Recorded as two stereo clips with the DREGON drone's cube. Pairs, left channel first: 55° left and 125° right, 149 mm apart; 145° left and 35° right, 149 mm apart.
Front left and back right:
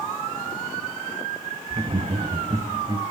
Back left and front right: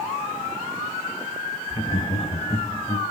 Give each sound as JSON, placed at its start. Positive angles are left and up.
{"t": 1.7, "sound": "laughter", "azimuth_deg": -170, "distance_m": 1.2}